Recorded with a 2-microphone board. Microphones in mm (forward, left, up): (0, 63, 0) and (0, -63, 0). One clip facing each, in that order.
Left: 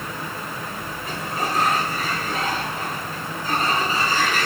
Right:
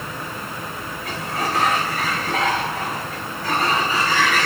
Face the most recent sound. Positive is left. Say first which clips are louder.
# right 1 dB
turn(degrees=-80)